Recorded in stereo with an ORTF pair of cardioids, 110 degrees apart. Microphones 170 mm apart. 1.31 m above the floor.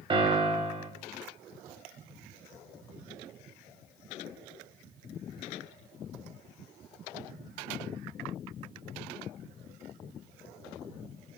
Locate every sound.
0.1 s a piano: 30° right, 2.5 m